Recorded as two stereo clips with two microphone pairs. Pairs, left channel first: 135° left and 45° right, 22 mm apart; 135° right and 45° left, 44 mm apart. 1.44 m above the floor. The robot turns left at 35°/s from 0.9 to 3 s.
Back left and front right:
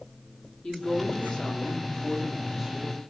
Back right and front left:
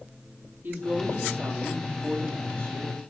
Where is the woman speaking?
85° left, 3 m; by 3.0 s 15° left, 3 m.